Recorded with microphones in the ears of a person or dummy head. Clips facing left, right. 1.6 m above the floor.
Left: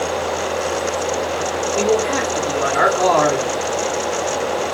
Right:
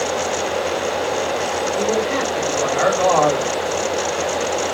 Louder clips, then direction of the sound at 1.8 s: Left 3 dB; 85° left.